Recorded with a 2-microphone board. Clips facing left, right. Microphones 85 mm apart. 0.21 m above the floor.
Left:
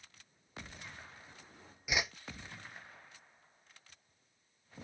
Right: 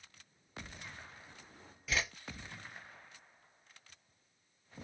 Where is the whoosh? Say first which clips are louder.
Left 1 dB; 15° left (ahead or behind), 0.8 m.